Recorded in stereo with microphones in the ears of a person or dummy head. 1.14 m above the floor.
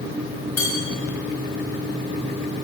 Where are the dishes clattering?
20° left (ahead or behind), 5.5 m.